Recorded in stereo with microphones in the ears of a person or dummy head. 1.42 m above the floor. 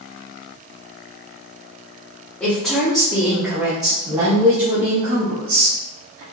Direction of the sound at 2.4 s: 5° left (ahead or behind).